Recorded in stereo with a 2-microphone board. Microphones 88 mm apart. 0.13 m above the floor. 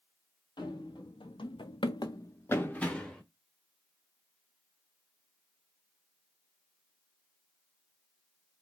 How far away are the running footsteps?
About 1.1 m.